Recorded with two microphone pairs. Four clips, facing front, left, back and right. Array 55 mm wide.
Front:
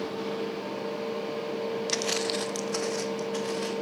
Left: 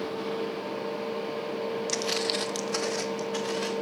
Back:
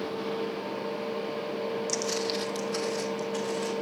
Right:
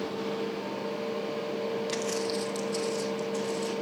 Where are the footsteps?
5° right, 0.7 m; by 3.7 s 65° left, 3 m.